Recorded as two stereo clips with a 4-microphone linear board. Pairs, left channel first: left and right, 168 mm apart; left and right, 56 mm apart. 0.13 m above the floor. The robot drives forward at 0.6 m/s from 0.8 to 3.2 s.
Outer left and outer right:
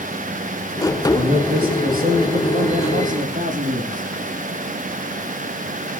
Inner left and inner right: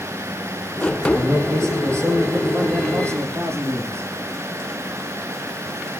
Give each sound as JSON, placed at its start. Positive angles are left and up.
{"t": 1.1, "sound": "a man speaking", "side_deg": -65, "distance_m": 4.5}